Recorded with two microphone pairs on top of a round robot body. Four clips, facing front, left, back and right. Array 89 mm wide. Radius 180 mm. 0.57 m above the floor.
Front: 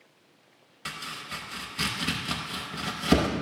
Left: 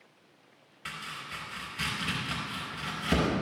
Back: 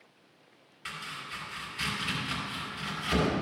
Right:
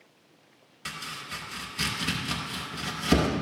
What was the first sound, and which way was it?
Chopping, 5° right.